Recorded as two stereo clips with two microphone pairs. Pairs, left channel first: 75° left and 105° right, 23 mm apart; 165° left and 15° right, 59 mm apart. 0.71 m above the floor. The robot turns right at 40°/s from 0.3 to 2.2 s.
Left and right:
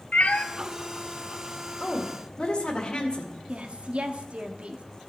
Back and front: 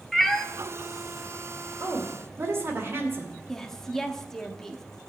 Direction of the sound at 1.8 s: 10° left.